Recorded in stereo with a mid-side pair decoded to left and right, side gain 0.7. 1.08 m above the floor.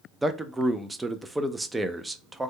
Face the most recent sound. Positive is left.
turn(degrees=-10)